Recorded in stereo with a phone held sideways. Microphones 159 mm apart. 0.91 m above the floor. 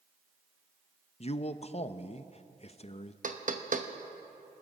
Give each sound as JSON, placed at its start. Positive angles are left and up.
{"t": 1.2, "sound": "a man speaking", "side_deg": 40, "distance_m": 0.6}
{"t": 3.2, "sound": "knocking", "side_deg": -55, "distance_m": 0.9}